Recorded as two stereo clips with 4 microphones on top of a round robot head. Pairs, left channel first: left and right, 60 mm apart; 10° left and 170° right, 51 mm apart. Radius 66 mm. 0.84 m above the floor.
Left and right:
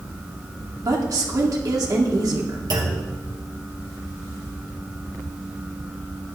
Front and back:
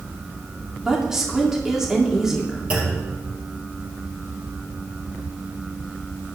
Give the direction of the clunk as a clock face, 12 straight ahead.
3 o'clock.